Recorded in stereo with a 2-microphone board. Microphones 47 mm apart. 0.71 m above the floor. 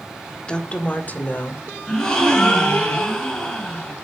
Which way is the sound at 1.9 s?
15° left (ahead or behind).